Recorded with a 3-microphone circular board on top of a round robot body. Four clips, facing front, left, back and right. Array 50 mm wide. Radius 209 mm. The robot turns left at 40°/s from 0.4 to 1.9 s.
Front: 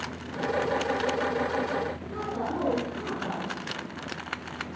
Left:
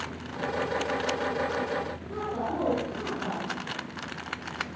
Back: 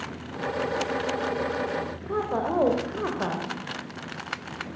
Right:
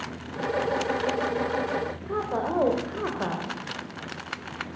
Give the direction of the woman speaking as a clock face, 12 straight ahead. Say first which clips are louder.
Right 5 dB, back 5 dB; 5 o'clock.